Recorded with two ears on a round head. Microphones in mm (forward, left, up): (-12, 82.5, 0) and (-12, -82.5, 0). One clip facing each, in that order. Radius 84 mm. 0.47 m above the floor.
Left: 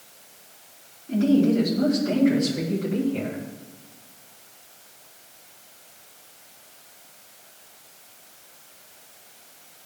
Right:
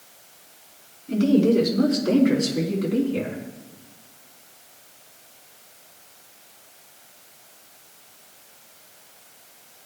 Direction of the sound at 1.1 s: 75° right (ahead or behind).